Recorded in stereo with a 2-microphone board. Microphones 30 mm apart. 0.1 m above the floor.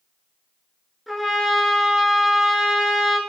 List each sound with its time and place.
1.1 s a trumpet: centre (ahead or behind), 0.6 m